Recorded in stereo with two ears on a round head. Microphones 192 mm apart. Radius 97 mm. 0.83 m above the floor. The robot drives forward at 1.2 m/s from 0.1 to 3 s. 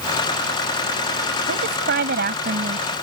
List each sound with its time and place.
1.5 s a woman speaking: 60° right (ahead or behind); by 3.0 s 40° right (ahead or behind)